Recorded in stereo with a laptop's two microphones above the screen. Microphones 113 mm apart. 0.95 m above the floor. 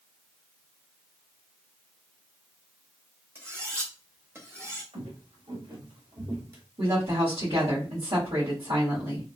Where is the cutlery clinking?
25° right (ahead or behind), 0.8 m.